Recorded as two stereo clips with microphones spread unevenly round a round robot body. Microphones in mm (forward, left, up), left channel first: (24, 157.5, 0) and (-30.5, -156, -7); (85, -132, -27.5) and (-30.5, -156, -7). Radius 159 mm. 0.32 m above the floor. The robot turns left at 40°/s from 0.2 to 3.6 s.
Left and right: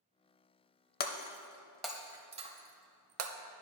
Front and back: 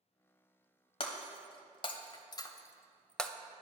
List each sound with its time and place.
1.0 s breaking glass: 25° left, 0.6 m; by 3.3 s 70° right, 0.6 m